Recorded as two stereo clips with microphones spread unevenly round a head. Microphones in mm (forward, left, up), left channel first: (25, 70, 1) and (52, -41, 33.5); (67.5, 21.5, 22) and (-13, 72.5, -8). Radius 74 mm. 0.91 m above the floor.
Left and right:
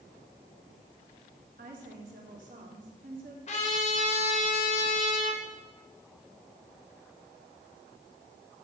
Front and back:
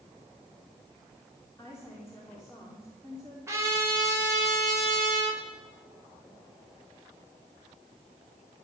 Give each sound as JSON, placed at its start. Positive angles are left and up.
{"t": 1.6, "sound": "a woman speaking", "azimuth_deg": -110, "distance_m": 3.0}
{"t": 3.5, "sound": "a trumpet", "azimuth_deg": 90, "distance_m": 4.5}